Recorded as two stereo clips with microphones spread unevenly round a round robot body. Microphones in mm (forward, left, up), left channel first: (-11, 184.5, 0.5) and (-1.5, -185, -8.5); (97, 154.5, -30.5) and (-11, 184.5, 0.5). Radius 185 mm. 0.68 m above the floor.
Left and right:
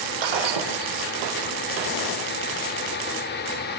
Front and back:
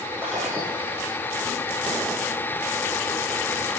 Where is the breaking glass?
115° right, 6 m.